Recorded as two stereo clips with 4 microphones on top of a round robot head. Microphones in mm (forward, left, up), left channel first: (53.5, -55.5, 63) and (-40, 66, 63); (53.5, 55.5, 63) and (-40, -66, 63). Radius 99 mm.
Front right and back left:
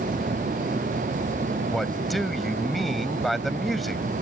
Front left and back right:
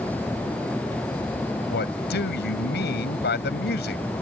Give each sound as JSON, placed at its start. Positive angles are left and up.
{"t": 1.7, "sound": "a man speaking", "azimuth_deg": 35}